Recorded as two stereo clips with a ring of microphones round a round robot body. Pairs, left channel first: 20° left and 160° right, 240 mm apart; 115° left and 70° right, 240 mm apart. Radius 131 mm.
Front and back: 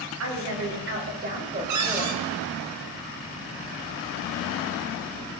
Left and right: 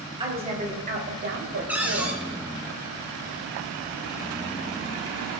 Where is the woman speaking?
135° right, 3 m; by 2.2 s 80° right, 2.5 m.